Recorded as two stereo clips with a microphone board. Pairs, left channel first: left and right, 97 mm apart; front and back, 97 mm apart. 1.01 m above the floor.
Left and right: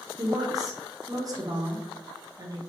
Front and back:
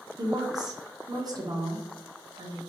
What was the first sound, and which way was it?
A woman speaking, 135° right.